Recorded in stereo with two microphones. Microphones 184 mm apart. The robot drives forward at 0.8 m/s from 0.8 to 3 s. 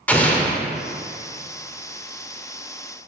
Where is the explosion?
10° left (ahead or behind), 0.7 m.